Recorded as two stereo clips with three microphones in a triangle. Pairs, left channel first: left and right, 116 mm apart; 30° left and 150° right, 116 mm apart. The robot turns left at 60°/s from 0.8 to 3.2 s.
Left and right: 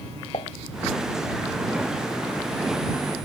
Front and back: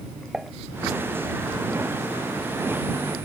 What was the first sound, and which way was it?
Dishes clattering, 125° left.